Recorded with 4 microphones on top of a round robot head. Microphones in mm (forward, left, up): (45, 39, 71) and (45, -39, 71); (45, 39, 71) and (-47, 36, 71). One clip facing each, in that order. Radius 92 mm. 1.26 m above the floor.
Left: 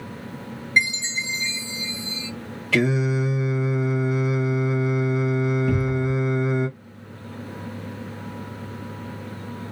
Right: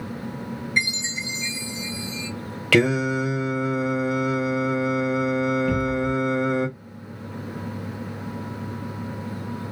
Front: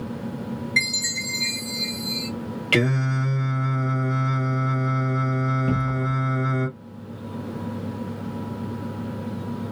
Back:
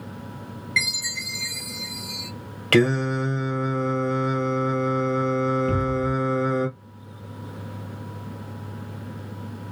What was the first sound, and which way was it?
A chime, 60° left.